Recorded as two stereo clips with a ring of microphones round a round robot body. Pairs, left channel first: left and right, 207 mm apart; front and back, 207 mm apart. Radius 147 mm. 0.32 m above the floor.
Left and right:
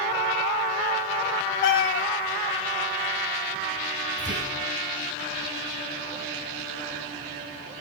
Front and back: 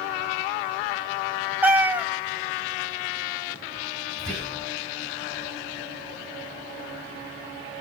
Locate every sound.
1.6 s a cat meowing: 100° left, 1.1 m
4.2 s whispering: 85° right, 2.5 m